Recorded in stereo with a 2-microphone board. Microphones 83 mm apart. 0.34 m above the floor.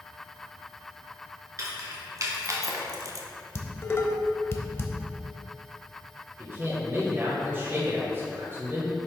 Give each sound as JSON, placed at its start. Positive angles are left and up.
{"t": 1.6, "sound": "keys jangling", "side_deg": -40, "distance_m": 3.0}
{"t": 3.5, "sound": "dishes clattering", "side_deg": 35, "distance_m": 1.0}
{"t": 6.4, "sound": "a man speaking", "side_deg": -30, "distance_m": 1.9}